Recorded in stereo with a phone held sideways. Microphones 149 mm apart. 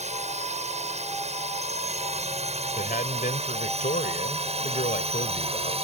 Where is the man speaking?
65° left (ahead or behind).